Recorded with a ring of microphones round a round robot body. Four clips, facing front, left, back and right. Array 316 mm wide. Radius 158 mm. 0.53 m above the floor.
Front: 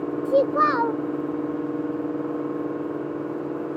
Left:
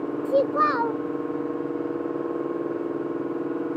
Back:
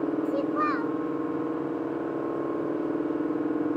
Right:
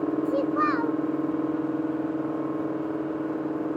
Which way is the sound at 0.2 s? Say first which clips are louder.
Left 6 dB, front 7 dB; 30° left.